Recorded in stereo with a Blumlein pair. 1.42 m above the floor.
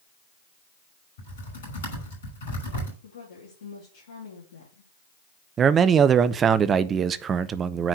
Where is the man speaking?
25° right, 0.6 m.